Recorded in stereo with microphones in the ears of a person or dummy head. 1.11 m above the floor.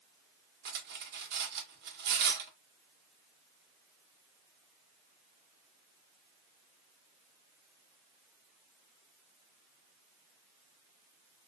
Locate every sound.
0.7 s cutlery clinking: 55° right (ahead or behind), 1.0 m